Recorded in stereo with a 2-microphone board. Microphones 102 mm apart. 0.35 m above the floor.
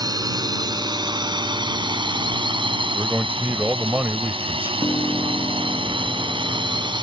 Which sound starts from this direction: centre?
A man speaking, at 2.9 s.